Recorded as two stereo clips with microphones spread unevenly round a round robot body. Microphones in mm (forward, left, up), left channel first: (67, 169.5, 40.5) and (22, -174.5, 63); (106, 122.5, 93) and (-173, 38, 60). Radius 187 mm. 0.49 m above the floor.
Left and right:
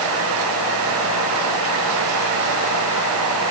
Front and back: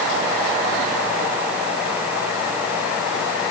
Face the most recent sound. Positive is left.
No sound to turn to.